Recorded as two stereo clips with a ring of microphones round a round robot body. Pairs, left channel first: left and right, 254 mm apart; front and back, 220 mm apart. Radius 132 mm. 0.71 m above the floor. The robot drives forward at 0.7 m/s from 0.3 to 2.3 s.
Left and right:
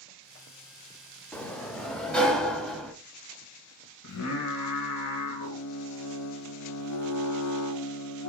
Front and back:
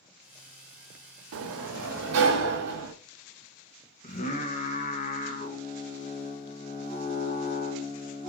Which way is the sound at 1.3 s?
175° left.